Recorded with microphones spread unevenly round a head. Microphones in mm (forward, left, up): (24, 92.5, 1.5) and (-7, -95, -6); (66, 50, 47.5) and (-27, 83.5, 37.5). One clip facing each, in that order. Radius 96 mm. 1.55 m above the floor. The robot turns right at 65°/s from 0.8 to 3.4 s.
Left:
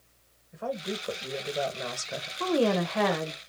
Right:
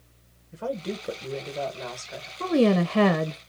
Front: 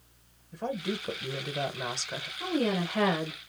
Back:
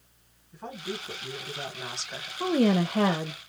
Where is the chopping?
No chopping in this recording.